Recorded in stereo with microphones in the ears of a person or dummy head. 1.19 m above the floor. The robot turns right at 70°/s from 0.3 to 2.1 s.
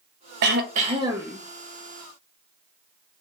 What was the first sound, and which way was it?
Throat clearing, 70° right.